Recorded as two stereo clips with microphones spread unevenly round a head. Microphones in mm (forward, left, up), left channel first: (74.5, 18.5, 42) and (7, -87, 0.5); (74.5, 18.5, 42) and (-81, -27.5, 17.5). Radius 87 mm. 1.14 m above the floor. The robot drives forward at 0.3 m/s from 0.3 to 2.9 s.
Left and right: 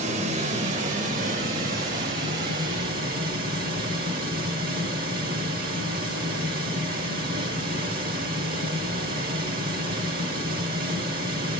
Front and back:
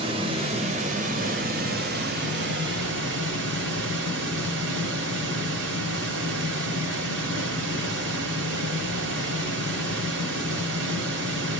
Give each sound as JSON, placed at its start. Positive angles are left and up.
{"t": 0.0, "sound": "running water", "azimuth_deg": -115, "distance_m": 1.0}